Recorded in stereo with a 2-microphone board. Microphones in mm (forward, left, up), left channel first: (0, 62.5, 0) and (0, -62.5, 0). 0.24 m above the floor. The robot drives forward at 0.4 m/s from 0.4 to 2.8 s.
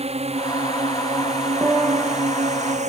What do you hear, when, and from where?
0.0 s a drone: 55° right (ahead or behind); by 2.9 s 70° right (ahead or behind)
1.6 s a piano: 20° right (ahead or behind); by 2.2 s 15° right (ahead or behind)